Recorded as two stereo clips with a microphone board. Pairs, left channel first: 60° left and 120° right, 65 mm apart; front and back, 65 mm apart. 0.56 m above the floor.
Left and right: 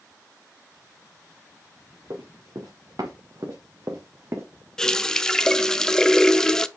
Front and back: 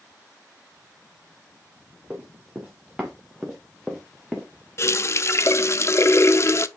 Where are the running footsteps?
115° right, 3 m; by 4.5 s 70° right, 1.9 m.